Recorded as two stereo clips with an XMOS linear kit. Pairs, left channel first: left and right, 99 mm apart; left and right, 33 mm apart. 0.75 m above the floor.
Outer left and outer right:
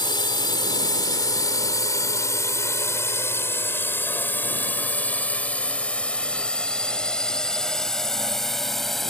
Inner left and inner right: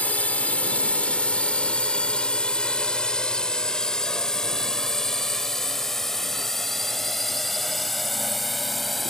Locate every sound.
0.0 s a drone: 50° left (ahead or behind); by 9.1 s 5° left (ahead or behind)